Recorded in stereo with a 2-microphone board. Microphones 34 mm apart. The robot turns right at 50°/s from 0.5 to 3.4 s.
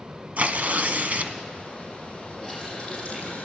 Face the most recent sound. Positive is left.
turn(degrees=50)